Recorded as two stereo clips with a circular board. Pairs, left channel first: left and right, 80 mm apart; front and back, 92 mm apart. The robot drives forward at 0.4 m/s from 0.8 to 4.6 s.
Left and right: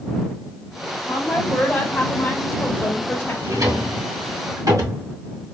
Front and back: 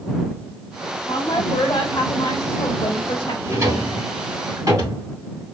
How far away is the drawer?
About 3 m.